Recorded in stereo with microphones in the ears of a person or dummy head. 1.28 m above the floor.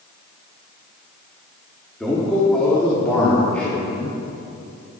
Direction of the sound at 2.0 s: Centre (ahead or behind).